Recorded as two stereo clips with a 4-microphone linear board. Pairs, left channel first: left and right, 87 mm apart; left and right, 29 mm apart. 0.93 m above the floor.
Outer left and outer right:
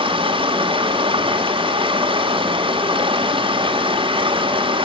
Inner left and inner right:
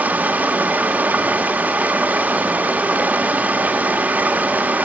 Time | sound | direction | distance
0.0 | running water | 80° right | 1.3 m